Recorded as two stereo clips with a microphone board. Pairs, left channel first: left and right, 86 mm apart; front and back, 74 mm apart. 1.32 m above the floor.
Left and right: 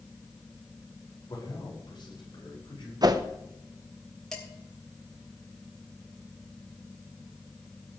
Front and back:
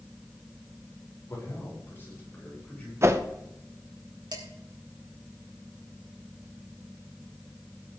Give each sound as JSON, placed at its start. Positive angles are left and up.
{"t": 1.3, "sound": "a man speaking", "azimuth_deg": 50, "distance_m": 5.5}
{"t": 3.0, "sound": "a whoosh", "azimuth_deg": -130, "distance_m": 1.0}
{"t": 4.3, "sound": "dishes clattering", "azimuth_deg": 175, "distance_m": 3.5}